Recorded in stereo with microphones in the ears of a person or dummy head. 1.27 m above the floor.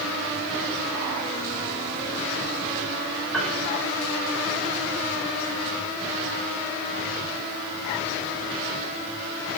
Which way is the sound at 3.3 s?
5° left (ahead or behind).